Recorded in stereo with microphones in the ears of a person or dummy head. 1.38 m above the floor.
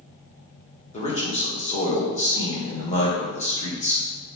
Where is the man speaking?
35° left (ahead or behind), 1.0 m.